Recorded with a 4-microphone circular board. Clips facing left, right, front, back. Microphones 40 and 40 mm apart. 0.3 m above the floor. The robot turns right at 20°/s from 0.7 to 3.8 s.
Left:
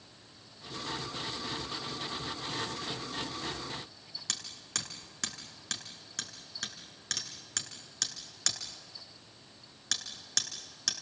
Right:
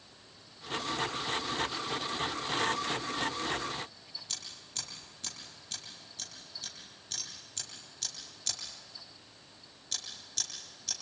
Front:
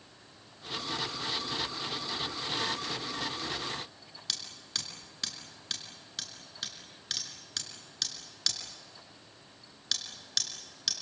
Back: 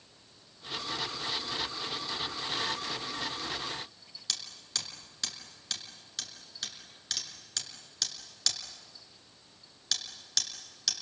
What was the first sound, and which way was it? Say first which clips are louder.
Hammering: left 7 dB, even; 85° left.